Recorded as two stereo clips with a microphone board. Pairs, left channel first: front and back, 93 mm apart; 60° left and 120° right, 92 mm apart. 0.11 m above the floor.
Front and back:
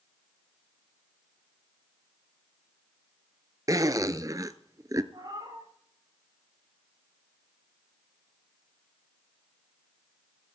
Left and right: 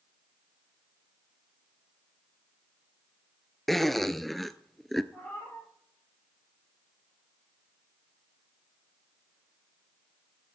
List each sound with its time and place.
3.7 s a zipper: 150° left, 0.6 m
5.1 s a cat meowing: 135° left, 8 m